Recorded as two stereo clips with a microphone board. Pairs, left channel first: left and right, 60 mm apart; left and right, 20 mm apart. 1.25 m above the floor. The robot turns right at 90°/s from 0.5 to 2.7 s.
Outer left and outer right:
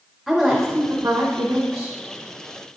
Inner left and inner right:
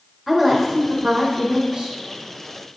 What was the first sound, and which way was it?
A woman speaking, straight behind.